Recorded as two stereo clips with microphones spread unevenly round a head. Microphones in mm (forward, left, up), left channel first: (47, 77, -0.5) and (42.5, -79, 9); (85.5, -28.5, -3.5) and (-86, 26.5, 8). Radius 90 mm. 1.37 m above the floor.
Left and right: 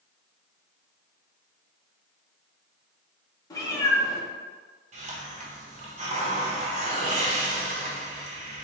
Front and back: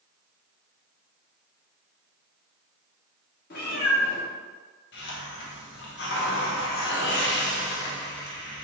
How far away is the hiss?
About 1.0 m.